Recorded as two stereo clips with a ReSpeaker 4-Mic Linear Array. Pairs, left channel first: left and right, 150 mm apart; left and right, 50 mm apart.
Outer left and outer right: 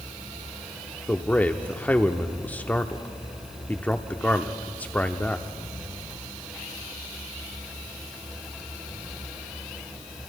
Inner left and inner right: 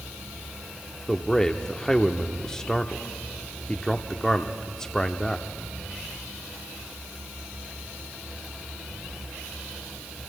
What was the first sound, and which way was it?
A man speaking, 10° left (ahead or behind).